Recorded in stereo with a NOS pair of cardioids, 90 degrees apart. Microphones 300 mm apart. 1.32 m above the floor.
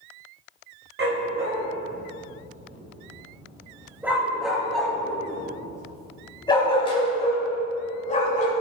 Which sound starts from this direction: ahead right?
A dog barking, at 1.0 s.